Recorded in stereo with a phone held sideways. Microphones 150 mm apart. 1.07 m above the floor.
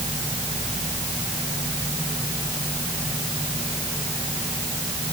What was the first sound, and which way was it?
Only background noise.